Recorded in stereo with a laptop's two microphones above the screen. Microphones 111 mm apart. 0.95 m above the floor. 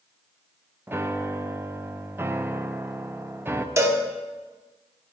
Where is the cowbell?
25° right (ahead or behind), 0.7 m.